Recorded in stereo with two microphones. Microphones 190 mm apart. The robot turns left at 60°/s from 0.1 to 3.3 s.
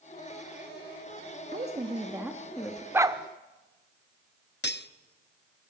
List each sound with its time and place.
1.5 s a woman speaking: 125° right, 1.3 m; by 2.8 s 155° left, 1.3 m
2.9 s a dog barking: 10° right (ahead or behind), 0.8 m; by 3.2 s 25° right (ahead or behind), 0.8 m
4.6 s cutlery clinking: 60° left (ahead or behind), 0.6 m